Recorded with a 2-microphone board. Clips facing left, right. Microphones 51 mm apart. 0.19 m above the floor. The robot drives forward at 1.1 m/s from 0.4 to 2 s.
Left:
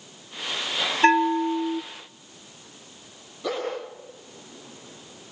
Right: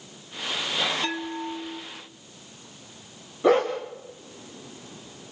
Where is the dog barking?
30° right (ahead or behind), 7 m.